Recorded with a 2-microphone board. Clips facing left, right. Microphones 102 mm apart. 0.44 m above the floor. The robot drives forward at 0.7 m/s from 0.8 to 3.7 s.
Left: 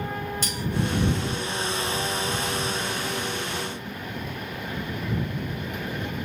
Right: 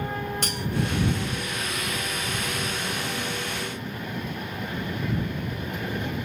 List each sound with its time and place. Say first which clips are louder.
0.4 s cutlery clinking: even; 65° right (ahead or behind), 0.9 m